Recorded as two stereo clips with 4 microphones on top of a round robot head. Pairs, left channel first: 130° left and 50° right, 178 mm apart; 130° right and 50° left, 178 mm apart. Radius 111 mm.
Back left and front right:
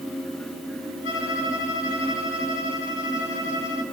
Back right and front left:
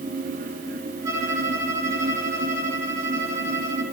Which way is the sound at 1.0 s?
125° left.